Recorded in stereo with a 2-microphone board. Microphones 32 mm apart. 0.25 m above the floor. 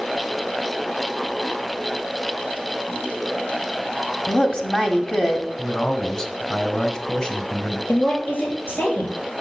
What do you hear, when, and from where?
4.3 s a woman speaking: 25° left (ahead or behind), 1.6 m
5.6 s a man speaking: 20° left (ahead or behind), 1.7 m
7.9 s a woman speaking: 80° left, 5 m